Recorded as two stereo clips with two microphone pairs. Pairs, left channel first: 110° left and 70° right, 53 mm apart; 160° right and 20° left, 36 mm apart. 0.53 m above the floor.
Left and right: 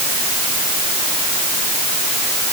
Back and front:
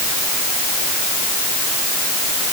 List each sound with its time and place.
Only background noise.